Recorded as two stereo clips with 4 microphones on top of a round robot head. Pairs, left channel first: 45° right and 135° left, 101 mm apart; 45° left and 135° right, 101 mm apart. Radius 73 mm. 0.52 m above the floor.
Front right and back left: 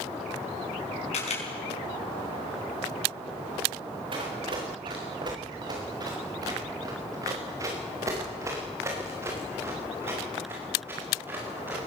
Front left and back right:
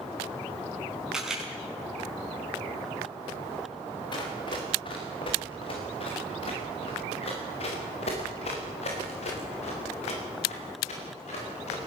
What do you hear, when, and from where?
1.1 s a camera shutter: 50° right, 5.5 m
4.1 s running footsteps: 90° left, 4.5 m; by 11.9 s 60° left, 8 m